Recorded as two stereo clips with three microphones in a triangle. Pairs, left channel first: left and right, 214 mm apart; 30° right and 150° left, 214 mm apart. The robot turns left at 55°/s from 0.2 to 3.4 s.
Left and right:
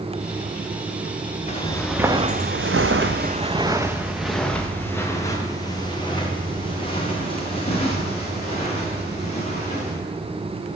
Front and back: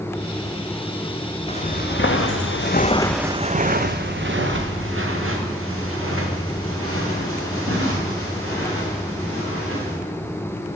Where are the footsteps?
30° left, 1.1 m; by 9.9 s 150° left, 4 m.